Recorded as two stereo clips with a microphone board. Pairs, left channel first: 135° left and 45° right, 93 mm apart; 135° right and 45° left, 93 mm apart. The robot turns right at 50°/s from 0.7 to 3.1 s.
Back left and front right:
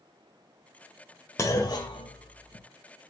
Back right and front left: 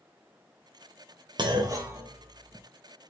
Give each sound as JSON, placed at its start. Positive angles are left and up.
{"t": 1.4, "sound": "a clunk", "azimuth_deg": 80, "distance_m": 0.6}